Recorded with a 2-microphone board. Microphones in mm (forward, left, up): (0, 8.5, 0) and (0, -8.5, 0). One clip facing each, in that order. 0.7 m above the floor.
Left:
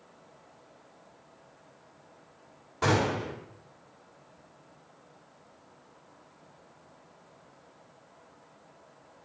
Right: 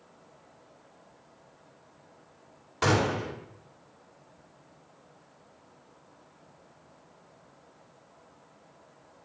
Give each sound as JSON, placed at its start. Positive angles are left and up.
{"t": 2.8, "sound": "a gunshot", "side_deg": -65, "distance_m": 2.0}